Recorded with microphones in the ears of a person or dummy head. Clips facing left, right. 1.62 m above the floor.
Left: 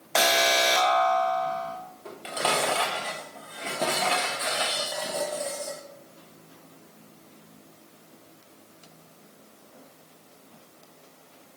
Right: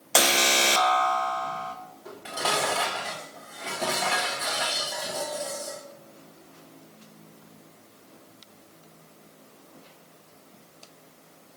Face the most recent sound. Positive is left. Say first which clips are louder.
# left 2 dB
turn(degrees=30)  # may be behind; listen again after turning